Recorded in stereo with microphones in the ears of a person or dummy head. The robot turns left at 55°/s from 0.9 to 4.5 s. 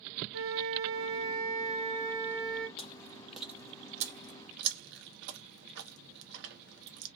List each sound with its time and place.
0.3 s a flute: 90° right, 1.2 m; by 2.7 s 170° left, 1.2 m
2.8 s chewing: 30° left (ahead or behind), 1.0 m; by 7.1 s 60° right (ahead or behind), 1.0 m